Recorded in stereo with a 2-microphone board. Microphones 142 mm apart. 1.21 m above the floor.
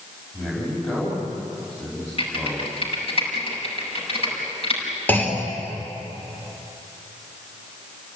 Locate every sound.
0.3 s a man speaking: 15° left (ahead or behind), 6.5 m
2.2 s typing on a keyboard: 50° left (ahead or behind), 7.5 m
5.1 s a clunk: 15° left (ahead or behind), 3.5 m